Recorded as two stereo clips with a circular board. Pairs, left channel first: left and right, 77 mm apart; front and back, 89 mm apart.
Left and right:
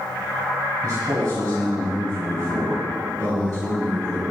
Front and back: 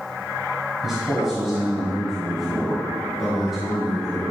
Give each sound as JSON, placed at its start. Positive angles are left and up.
{"t": 0.8, "sound": "a man speaking", "azimuth_deg": -95, "distance_m": 1.5}